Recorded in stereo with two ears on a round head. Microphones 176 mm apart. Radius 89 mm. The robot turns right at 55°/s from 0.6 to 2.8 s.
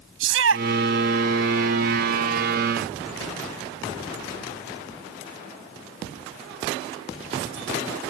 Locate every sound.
0.2 s a shout: 70° right (ahead or behind); by 0.7 s 65° right (ahead or behind)